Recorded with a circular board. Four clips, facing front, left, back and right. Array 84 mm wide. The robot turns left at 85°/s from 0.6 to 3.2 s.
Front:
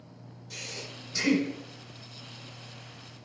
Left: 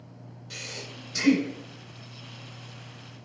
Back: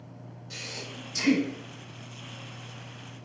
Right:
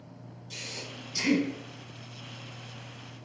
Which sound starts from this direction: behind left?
Breathing, at 0.5 s.